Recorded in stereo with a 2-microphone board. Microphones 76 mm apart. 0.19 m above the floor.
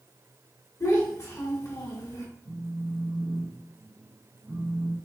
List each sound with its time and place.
0.8 s a child speaking: 45° left (ahead or behind), 1.1 m
2.5 s a phone buzzing: 35° right (ahead or behind), 0.8 m